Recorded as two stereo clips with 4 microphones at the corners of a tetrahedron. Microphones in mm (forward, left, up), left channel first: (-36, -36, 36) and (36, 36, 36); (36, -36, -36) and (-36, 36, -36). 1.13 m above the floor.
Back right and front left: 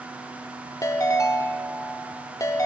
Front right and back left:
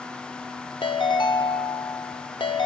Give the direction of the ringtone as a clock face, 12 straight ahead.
3 o'clock.